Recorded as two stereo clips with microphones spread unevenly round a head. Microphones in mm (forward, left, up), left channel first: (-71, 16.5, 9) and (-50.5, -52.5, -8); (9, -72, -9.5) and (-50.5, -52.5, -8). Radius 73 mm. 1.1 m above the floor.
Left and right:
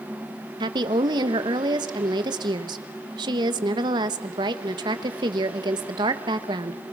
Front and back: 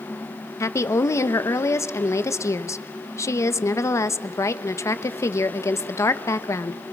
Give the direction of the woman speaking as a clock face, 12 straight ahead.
2 o'clock.